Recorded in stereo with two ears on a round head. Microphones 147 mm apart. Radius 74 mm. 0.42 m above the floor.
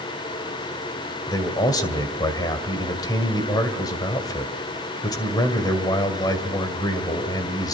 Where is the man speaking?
25° left (ahead or behind), 2.5 m.